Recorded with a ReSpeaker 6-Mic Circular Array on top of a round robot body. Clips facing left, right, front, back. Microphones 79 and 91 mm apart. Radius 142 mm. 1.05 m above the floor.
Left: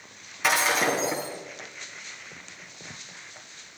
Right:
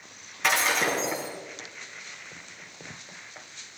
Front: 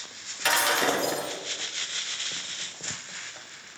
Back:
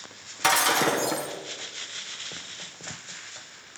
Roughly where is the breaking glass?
Behind.